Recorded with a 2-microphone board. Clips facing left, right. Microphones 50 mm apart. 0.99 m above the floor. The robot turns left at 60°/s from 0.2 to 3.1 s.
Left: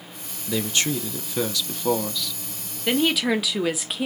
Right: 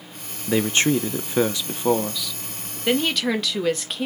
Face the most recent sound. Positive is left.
turn(degrees=5)  # may be behind; listen again after turning